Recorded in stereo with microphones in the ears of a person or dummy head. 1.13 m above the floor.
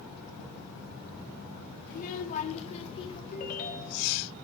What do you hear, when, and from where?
1.9 s a child speaking: 50° left (ahead or behind), 2.5 m; by 3.2 s 30° left (ahead or behind), 2.5 m
3.3 s a ringtone: 50° left (ahead or behind), 3.5 m